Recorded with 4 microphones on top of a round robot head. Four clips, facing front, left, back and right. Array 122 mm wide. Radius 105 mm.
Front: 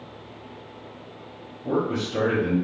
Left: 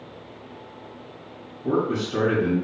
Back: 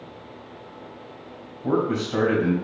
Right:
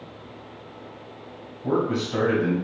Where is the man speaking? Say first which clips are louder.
Even, back 2 dB; 155° right, 2 m.